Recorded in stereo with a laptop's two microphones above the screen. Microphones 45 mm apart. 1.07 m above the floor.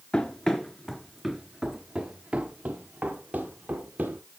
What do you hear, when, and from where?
0.1 s running footsteps: 20° left (ahead or behind), 1.0 m; by 4.2 s 40° right (ahead or behind), 2 m